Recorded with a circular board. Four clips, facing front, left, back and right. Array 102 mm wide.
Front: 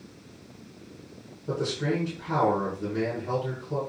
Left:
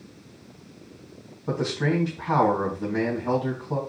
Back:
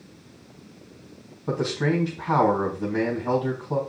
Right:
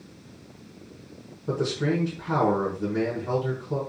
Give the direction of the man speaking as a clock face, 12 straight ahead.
7 o'clock.